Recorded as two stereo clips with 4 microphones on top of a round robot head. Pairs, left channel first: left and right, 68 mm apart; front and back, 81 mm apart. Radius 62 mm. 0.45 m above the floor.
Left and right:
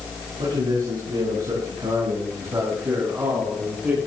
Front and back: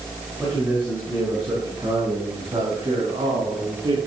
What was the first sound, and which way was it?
A man speaking, 100° right.